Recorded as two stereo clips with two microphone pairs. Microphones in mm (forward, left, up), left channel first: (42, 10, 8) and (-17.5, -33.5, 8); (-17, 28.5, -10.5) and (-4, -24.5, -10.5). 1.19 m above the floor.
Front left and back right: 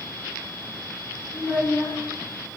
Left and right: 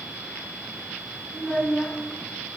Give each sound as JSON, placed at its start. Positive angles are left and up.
{"t": 1.3, "sound": "a child speaking", "azimuth_deg": 40, "distance_m": 0.9}